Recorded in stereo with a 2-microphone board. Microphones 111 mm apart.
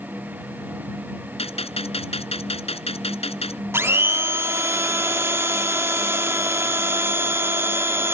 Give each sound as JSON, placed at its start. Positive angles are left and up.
{"t": 1.4, "sound": "a gunshot", "side_deg": 70}
{"t": 3.7, "sound": "a blender", "side_deg": -25}